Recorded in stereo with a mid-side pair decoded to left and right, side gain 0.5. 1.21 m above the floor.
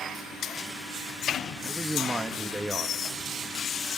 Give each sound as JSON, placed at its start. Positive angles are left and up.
{"t": 1.6, "sound": "a man speaking", "azimuth_deg": -20, "distance_m": 2.0}